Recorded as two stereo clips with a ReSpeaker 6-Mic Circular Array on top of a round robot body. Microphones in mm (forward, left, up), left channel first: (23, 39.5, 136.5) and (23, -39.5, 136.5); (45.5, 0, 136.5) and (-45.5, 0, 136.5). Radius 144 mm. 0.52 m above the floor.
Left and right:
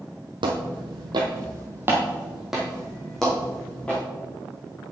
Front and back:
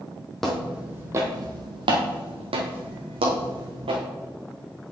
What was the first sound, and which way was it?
Footsteps, 90° right.